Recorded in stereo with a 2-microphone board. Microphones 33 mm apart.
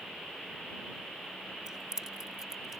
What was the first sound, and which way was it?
Keys jangling, 20° right (ahead or behind).